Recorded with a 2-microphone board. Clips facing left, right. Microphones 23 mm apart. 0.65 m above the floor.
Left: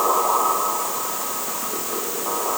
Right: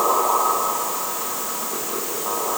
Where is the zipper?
No zipper in this recording.